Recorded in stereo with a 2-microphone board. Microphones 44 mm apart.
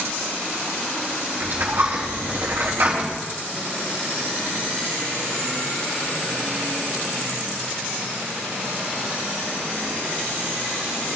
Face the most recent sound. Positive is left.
turn(degrees=-50)  # may be behind; listen again after turning